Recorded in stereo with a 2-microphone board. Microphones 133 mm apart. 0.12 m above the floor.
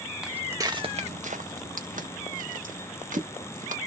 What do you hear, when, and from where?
0.2 s footsteps: 5° right (ahead or behind), 0.6 m; by 3.8 s 70° right (ahead or behind), 1.9 m